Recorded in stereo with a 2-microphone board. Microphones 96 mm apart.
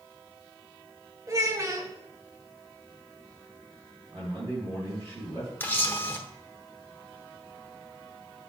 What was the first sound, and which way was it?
A child speaking, 35° right (ahead or behind).